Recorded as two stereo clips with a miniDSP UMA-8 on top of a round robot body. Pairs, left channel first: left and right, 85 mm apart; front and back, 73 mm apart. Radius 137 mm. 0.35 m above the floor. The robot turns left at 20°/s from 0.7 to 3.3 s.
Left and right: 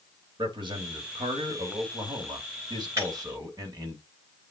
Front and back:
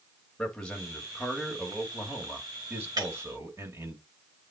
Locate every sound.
0.4 s a man speaking: 80° right, 3 m; by 4.0 s 130° right, 3 m
3.0 s breaking glass: 145° right, 5.5 m; by 3.1 s 150° right, 5.5 m